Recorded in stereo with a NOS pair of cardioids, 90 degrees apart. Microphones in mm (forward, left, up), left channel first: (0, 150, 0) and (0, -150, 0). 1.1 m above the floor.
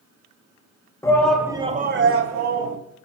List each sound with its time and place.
1.0 s a shout: 10° left, 1.3 m; by 2.8 s 80° right, 1.3 m